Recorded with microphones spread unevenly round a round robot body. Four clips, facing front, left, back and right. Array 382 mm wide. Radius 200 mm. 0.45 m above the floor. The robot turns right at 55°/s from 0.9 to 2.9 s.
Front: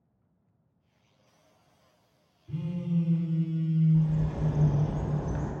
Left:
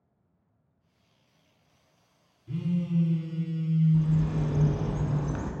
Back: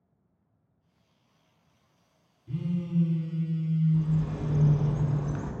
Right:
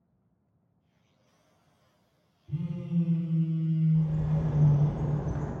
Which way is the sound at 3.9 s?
110° left.